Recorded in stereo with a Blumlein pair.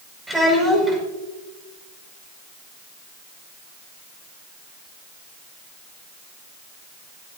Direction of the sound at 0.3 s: 10° right.